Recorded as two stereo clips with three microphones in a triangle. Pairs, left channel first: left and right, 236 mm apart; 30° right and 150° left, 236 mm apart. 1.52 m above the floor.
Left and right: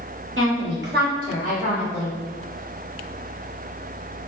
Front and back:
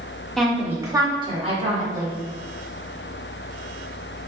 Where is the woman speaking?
120° right, 1.2 m; by 2.1 s 150° right, 2 m.